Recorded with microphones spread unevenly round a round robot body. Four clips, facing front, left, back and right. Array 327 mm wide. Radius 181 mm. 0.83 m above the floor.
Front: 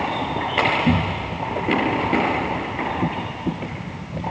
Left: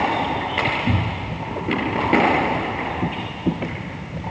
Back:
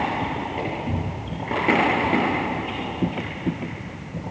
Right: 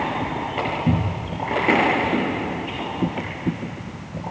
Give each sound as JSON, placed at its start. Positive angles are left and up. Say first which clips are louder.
{"t": 0.9, "sound": "a cupboard door", "louder": "right 1 dB, front 8 dB", "azimuth_deg": -40, "distance_m": 4.0}